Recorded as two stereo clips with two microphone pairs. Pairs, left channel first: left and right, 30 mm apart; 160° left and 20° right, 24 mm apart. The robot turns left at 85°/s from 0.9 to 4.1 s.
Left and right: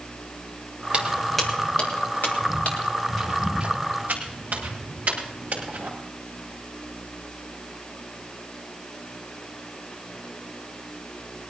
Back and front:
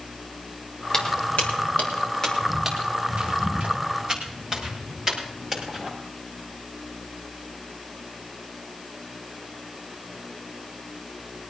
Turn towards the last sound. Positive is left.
turn(degrees=-95)